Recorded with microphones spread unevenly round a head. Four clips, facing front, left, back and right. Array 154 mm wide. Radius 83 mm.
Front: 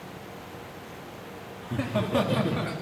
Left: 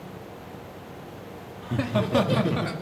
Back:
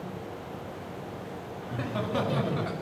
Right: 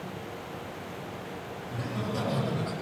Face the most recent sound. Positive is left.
turn(degrees=55)